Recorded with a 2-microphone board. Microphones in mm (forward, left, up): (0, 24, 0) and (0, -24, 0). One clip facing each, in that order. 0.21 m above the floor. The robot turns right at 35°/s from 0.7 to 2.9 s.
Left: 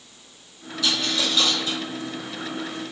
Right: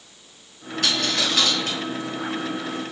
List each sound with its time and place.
0.8 s a dropped coin: 55° right (ahead or behind), 1.0 m; by 1.8 s 60° right (ahead or behind), 1.0 m